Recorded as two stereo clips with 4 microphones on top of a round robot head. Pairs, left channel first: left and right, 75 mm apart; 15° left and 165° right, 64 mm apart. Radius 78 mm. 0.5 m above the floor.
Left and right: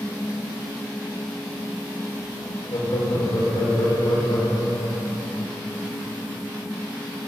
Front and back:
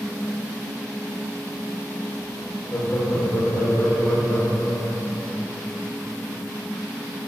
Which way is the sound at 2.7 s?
80° left.